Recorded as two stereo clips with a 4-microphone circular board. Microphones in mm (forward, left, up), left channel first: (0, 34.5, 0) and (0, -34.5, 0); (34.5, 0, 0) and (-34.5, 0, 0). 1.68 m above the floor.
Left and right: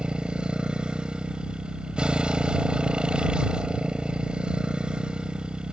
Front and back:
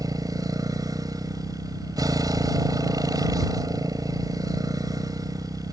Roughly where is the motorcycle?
Behind.